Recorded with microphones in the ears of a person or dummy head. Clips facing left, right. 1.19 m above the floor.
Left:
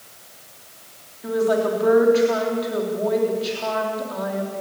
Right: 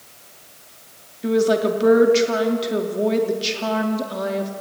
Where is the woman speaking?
40° right (ahead or behind), 3 m.